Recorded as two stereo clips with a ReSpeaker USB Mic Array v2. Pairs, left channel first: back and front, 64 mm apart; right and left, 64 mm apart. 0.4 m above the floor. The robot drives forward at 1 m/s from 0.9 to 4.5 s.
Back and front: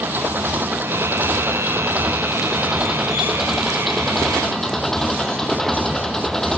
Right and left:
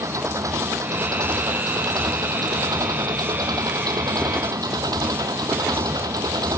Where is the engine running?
55° left; by 6.6 s 95° left.